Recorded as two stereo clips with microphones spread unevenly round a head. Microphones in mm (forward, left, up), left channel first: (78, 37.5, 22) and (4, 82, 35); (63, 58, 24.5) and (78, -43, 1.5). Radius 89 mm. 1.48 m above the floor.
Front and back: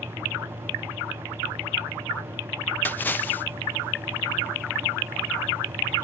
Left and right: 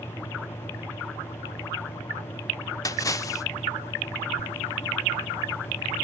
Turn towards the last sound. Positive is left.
turn(degrees=40)